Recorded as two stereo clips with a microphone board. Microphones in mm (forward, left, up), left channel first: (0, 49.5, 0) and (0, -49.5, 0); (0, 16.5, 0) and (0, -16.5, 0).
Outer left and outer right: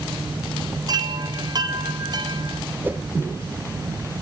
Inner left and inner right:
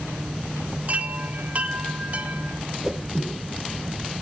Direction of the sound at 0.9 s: 45° right (ahead or behind).